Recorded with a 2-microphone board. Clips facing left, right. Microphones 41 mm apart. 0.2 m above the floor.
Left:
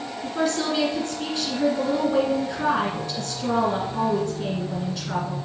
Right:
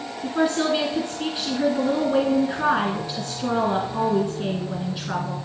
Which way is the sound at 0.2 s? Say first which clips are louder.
Right 3 dB; 20° right (ahead or behind).